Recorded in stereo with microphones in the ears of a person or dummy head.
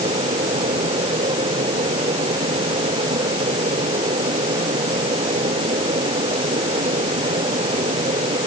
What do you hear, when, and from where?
0.0 s a fan: 25° right (ahead or behind)